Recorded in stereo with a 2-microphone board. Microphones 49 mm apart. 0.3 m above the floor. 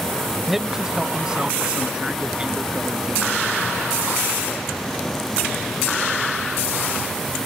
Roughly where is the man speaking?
Centre.